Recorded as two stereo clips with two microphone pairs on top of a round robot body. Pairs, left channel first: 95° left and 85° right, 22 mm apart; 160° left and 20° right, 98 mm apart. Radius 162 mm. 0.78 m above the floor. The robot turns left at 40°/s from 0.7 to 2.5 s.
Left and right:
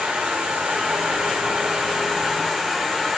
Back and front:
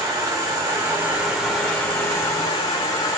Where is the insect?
80° right, 0.9 m; by 3.2 s 155° right, 0.9 m.